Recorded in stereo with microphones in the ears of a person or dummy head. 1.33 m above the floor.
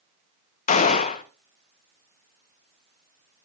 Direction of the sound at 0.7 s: 45° left (ahead or behind).